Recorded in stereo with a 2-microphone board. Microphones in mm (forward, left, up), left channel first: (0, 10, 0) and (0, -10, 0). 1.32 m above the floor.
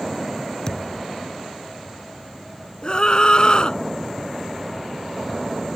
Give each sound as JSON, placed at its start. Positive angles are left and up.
{"t": 0.7, "sound": "a thud", "side_deg": 40}
{"t": 2.8, "sound": "a scream", "side_deg": 40}